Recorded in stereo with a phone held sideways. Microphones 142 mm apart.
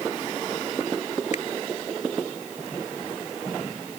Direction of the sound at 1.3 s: 55° left (ahead or behind).